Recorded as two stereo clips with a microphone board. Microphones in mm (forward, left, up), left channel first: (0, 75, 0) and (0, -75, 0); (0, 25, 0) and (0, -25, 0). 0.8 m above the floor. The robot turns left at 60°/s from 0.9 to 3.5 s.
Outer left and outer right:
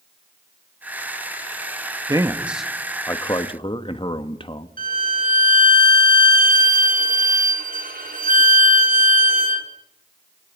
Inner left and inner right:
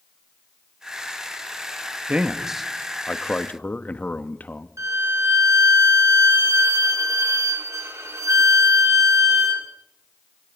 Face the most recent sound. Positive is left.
turn(degrees=-70)  # may be behind; listen again after turning